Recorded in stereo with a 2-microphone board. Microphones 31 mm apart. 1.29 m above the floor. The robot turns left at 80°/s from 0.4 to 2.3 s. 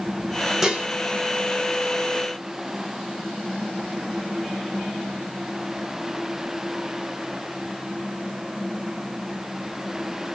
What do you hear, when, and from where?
0.6 s dishes clattering: 20° right (ahead or behind), 0.7 m; by 0.9 s 30° right (ahead or behind), 0.7 m